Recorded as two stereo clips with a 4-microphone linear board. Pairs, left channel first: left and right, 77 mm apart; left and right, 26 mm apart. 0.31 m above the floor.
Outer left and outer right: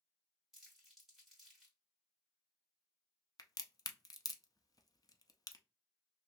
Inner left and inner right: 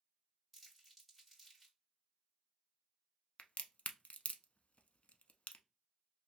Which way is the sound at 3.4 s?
55° left (ahead or behind).